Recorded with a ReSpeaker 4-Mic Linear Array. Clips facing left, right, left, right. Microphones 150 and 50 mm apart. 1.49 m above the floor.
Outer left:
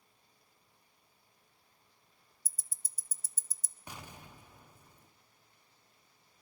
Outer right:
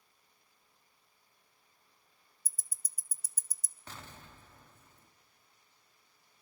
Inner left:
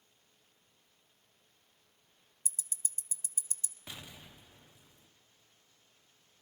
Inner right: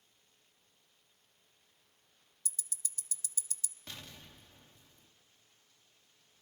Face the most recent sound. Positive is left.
turn(degrees=15)  # may be behind; listen again after turning